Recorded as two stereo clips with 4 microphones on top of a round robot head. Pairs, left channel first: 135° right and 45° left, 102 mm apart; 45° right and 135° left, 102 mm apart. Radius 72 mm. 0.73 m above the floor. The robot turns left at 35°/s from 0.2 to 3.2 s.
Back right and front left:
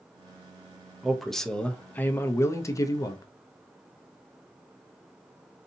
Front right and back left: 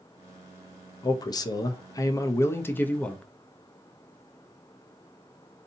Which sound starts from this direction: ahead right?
A man speaking, at 1.0 s.